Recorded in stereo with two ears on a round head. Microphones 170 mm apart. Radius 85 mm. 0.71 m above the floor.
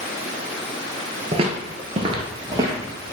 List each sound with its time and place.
1.3 s footsteps: 30° right (ahead or behind), 0.8 m; by 3.1 s 10° right (ahead or behind), 1.1 m